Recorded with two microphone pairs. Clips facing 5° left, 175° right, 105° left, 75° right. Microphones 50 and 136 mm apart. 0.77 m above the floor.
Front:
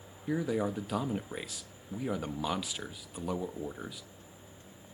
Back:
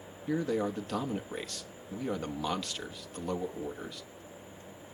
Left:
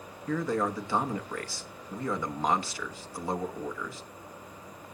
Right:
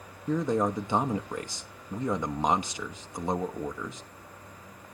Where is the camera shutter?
I don't hear a camera shutter.